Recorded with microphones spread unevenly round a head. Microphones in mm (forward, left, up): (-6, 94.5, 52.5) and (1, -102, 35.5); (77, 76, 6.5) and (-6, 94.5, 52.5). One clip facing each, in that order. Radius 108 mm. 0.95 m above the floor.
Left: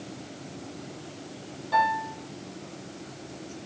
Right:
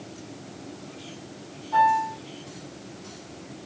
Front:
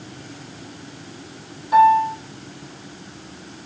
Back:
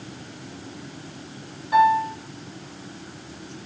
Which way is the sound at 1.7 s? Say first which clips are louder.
Right 4 dB, front 4 dB; 75° left.